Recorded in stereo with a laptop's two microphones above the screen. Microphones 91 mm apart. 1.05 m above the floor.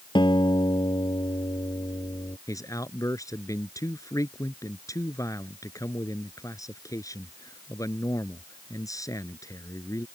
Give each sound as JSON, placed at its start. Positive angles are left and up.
{"t": 0.1, "sound": "a guitar", "side_deg": 60}
{"t": 2.5, "sound": "a man speaking", "side_deg": 40}